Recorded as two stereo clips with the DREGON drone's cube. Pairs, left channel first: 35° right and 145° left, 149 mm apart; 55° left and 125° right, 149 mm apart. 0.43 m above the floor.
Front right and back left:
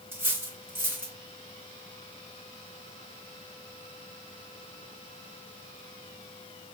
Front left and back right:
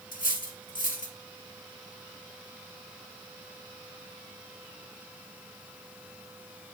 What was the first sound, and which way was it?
Cutlery clinking, 70° left.